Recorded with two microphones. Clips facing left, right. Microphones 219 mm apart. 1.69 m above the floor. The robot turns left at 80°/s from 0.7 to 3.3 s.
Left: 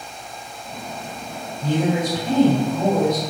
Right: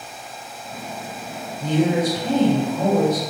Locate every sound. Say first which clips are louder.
1.6 s a woman speaking: right 2 dB; 70° right, 1.7 m; by 3.2 s 160° left, 1.7 m